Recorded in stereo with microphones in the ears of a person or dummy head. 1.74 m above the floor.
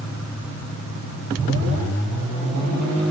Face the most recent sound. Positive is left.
No sound to turn to.